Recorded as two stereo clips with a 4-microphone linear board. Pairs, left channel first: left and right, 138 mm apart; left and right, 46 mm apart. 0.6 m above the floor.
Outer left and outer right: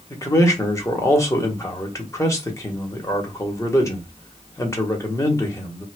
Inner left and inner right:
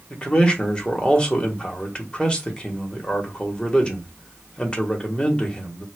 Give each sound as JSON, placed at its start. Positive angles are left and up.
{"t": 0.1, "sound": "a man speaking", "side_deg": 20, "distance_m": 1.0}